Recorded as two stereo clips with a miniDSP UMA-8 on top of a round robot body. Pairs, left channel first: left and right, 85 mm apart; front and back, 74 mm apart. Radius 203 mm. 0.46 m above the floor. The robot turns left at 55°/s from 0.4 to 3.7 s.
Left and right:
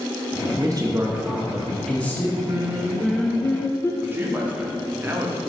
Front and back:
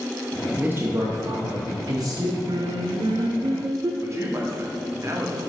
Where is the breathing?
No breathing in this recording.